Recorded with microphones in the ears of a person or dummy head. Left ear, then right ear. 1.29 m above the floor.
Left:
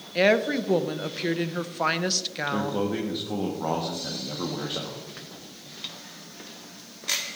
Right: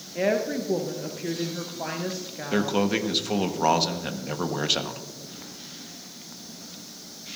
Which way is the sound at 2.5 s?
70° right (ahead or behind).